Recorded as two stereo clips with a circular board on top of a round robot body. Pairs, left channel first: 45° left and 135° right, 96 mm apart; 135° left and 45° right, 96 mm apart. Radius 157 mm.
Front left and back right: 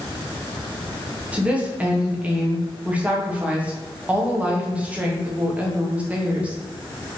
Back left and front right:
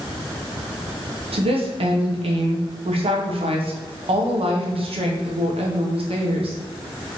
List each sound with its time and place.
1.3 s a woman speaking: 60° right, 0.9 m